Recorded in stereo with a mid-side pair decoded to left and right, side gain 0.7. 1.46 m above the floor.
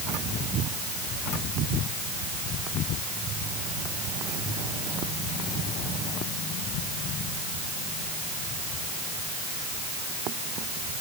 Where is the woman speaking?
No woman speaking in this recording.